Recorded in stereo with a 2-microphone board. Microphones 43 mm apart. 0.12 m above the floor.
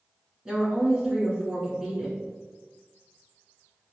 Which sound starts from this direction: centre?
A woman speaking, at 0.5 s.